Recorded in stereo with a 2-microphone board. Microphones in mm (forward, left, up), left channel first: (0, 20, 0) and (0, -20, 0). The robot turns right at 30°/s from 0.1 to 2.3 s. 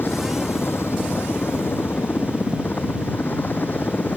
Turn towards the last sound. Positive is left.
turn(degrees=50)  # may be behind; listen again after turning